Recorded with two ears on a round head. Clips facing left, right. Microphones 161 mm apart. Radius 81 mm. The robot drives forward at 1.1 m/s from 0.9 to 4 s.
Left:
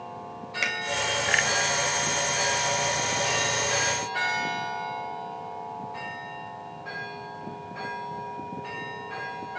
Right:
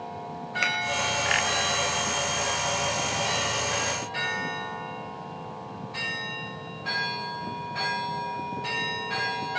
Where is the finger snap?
5° left (ahead or behind), 3.5 m.